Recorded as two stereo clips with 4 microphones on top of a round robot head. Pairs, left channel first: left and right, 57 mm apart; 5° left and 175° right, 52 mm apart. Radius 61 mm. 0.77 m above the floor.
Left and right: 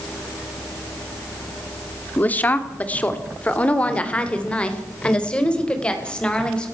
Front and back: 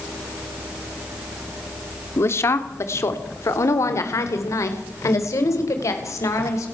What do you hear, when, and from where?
2.2 s a woman speaking: 30° left, 2.5 m; by 6.7 s 15° left, 5.5 m